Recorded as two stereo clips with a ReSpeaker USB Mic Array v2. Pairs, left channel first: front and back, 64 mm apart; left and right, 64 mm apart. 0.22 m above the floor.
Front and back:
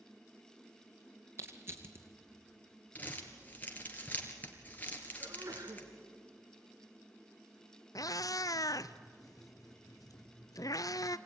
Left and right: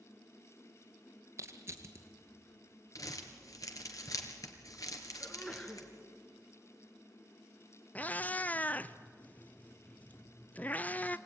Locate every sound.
1.4 s crushing: 130° right, 2 m
3.0 s crumpling: 65° left, 2.5 m
5.2 s a sneeze: 170° left, 2 m
8.0 s a cat meowing: 25° left, 0.5 m